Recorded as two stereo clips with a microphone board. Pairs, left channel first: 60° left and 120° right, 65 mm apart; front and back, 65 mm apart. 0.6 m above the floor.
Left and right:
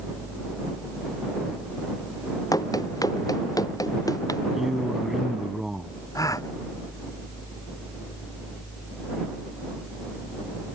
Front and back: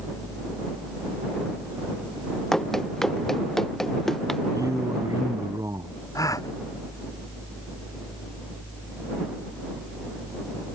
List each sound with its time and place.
2.5 s running footsteps: 85° left
4.5 s a man speaking: 155° left
6.2 s a gasp: 30° left